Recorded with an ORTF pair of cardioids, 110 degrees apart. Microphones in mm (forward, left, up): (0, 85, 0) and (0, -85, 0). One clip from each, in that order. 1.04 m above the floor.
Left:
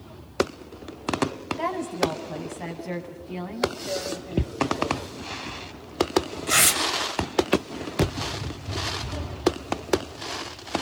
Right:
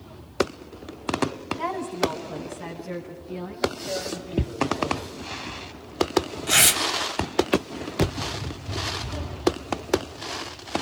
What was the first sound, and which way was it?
A woman speaking, 25° left.